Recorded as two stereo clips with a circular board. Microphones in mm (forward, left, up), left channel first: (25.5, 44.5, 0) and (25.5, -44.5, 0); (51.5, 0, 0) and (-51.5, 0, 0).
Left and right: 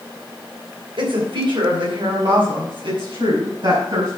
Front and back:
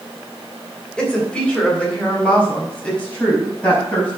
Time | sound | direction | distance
1.0 | a woman speaking | 80° right | 3 m